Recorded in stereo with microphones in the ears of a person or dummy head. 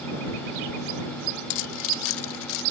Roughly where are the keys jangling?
Left.